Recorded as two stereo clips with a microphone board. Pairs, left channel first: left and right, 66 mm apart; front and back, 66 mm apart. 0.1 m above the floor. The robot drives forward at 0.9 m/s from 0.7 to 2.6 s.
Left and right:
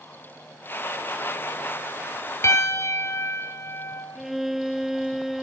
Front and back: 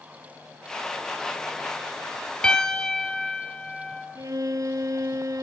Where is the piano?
70° left, 1.8 m; by 4.0 s 75° left, 1.7 m.